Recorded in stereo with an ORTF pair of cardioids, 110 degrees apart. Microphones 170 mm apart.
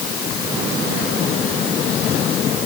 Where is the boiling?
I don't hear boiling.